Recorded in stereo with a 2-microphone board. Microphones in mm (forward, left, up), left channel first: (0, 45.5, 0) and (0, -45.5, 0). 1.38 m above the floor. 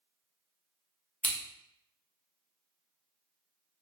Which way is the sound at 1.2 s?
15° left (ahead or behind).